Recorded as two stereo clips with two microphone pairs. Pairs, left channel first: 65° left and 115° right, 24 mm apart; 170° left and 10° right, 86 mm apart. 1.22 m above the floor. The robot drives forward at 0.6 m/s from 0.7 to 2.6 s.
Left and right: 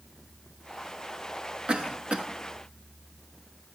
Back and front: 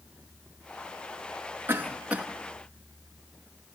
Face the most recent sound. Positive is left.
turn(degrees=-95)